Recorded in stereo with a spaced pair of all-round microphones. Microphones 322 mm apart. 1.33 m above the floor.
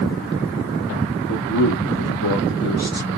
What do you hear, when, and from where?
1.3 s a man speaking: 55° left (ahead or behind), 1.3 m